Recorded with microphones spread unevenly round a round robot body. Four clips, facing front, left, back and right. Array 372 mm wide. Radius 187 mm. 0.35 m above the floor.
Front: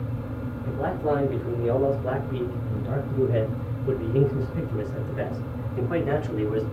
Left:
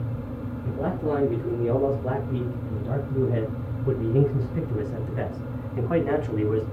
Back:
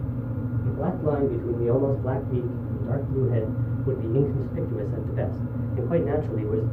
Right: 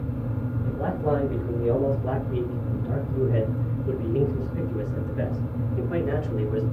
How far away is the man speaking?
About 4 m.